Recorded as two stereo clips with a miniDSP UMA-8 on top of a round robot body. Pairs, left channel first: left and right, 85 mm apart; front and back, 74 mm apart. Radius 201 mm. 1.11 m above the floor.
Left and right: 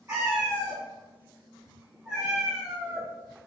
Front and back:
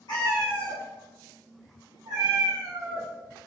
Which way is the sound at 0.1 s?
30° right.